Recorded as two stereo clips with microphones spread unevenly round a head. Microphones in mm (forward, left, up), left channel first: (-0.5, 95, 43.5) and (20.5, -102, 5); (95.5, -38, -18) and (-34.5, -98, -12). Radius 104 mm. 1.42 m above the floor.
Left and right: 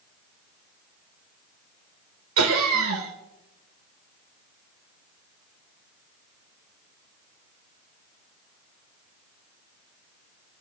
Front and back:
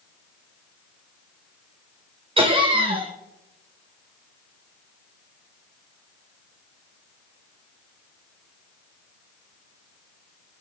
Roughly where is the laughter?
Right.